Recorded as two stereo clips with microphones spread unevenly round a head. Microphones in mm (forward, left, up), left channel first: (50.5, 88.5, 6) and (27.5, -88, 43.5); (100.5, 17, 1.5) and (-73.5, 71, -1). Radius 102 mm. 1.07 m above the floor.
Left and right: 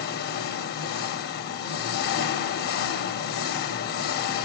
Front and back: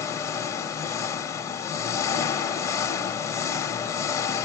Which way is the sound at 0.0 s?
55° left.